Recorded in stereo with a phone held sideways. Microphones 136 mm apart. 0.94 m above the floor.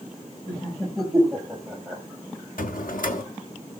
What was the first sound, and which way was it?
Laughter, 10° left (ahead or behind).